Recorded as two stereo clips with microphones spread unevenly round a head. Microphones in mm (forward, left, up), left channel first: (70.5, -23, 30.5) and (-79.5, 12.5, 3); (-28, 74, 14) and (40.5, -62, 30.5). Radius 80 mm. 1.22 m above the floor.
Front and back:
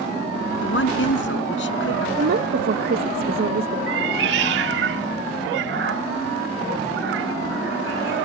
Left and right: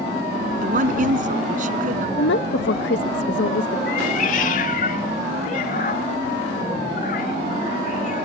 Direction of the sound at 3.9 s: 155° left.